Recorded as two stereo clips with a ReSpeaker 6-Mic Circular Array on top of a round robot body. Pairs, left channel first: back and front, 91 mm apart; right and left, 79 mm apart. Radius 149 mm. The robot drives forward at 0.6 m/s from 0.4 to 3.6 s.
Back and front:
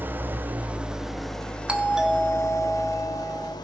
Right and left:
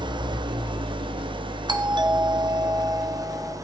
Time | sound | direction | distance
0.0 | an engine running | 70° left | 1.5 m
1.7 | a doorbell | 80° left | 2 m